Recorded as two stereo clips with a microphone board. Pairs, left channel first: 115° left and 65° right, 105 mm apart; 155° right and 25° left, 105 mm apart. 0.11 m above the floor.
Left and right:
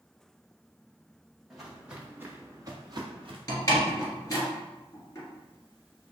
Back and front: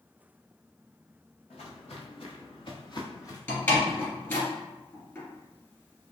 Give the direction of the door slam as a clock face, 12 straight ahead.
7 o'clock.